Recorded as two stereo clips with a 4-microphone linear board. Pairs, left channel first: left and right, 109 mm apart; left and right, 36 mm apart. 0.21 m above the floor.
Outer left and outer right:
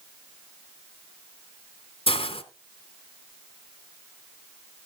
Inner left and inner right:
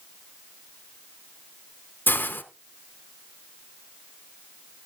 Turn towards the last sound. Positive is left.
turn(degrees=60)  # may be behind; listen again after turning